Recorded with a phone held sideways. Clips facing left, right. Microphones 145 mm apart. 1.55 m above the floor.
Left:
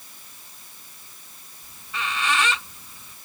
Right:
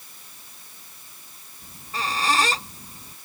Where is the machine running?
No machine running in this recording.